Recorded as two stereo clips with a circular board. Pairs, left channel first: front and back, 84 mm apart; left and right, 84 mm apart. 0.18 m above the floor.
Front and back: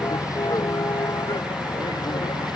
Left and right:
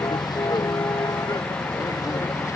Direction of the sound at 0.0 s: 50° left.